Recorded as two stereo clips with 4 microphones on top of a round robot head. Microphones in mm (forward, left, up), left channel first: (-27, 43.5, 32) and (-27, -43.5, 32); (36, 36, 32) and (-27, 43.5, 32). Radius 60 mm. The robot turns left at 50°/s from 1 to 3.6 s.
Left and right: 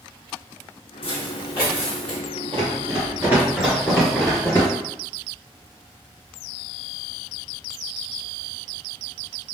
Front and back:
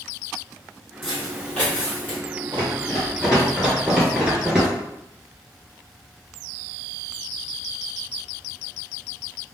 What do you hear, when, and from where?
1.0 s footsteps: 80° left, 1.8 m; by 2.2 s 15° left, 1.4 m
2.5 s running footsteps: 65° right, 1.7 m; by 4.7 s 95° left, 1.5 m